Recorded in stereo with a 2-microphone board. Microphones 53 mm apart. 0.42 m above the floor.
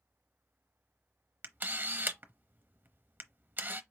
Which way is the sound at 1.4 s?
40° right (ahead or behind).